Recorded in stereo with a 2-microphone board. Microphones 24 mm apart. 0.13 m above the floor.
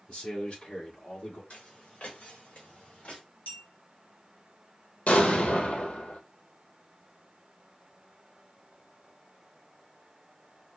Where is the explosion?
75° left (ahead or behind), 1.2 m.